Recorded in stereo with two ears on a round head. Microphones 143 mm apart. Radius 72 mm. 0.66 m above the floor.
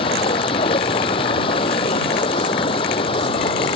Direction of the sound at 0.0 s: 35° left (ahead or behind).